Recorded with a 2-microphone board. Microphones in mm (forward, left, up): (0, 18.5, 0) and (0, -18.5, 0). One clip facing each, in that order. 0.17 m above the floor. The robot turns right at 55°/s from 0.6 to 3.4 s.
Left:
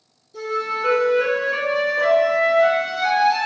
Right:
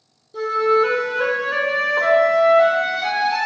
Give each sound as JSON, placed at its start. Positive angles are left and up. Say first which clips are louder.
{"t": 0.3, "sound": "a flute", "louder": "right 7 dB", "azimuth_deg": -145, "distance_m": 1.6}